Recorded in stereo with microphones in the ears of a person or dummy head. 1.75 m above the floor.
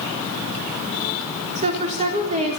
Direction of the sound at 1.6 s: 35° right (ahead or behind).